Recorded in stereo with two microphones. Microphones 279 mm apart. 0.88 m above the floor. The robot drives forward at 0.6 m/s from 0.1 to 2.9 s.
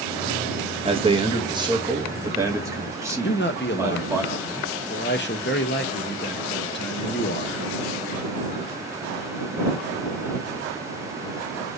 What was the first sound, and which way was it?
A man speaking, 20° right (ahead or behind).